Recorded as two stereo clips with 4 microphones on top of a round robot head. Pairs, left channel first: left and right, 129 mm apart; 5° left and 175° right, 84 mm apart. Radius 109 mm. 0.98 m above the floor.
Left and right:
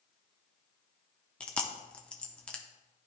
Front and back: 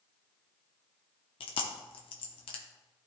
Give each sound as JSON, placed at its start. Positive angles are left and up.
{"t": 1.4, "sound": "chewing", "azimuth_deg": 10, "distance_m": 0.7}